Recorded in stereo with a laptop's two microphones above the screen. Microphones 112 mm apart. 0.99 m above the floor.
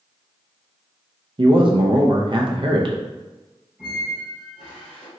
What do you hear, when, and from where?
1.4 s a man speaking: 50° right (ahead or behind), 0.6 m
3.8 s a squeak: centre (ahead or behind), 1.9 m